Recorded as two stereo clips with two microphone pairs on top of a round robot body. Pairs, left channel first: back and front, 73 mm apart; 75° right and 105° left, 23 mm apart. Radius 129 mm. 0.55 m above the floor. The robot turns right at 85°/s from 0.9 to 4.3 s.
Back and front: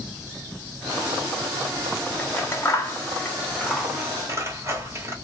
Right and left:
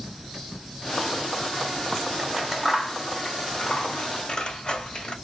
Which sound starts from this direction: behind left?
Scissors, at 2.2 s.